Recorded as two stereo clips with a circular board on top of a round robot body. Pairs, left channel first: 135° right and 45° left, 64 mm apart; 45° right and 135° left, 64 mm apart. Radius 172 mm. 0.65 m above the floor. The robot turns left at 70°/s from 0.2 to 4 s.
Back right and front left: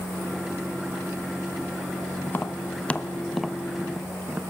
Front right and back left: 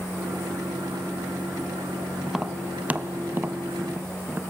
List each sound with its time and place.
2.2 s tapping: 140° right, 1.2 m; by 4.4 s 100° left, 1.2 m